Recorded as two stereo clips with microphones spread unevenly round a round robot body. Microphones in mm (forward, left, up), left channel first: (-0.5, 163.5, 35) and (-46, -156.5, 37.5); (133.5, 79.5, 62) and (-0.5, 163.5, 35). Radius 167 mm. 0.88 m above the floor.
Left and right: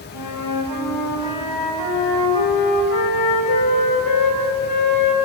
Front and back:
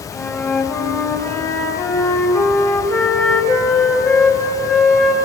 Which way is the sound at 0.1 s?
45° left.